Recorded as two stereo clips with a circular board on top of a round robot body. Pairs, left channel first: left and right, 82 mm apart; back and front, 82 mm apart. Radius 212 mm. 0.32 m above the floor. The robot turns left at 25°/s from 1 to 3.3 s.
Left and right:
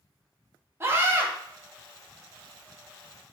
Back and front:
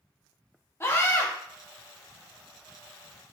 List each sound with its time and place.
0.8 s a scream: 135° right, 1.1 m; by 1.3 s 145° right, 1.1 m